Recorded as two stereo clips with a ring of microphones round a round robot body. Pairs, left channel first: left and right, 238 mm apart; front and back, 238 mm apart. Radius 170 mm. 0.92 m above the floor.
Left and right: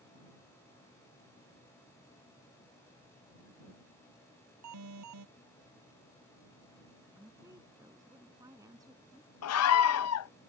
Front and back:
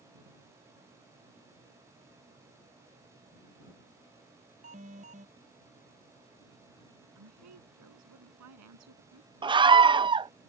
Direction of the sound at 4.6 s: 110° right.